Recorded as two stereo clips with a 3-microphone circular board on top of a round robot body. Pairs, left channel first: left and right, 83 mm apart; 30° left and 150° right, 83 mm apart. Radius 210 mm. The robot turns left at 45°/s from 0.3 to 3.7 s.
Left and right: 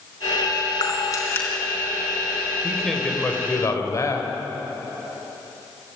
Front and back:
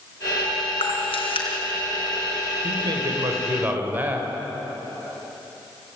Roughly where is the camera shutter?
Ahead left.